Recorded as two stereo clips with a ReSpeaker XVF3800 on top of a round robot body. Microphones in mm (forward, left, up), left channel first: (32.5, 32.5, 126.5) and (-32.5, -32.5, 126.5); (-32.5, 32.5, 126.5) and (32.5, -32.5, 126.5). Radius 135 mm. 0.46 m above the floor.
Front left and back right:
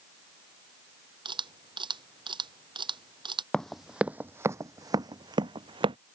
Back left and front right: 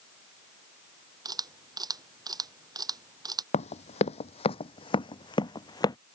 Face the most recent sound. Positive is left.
turn(degrees=-170)